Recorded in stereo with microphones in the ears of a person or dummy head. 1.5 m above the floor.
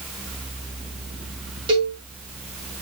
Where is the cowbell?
25° right (ahead or behind), 2.5 m.